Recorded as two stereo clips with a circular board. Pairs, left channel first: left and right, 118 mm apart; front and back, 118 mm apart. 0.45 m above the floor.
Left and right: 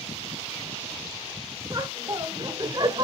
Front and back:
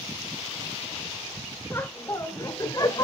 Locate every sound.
1.7 s laughter: 55° right, 1.4 m; by 3.0 s 50° right, 2 m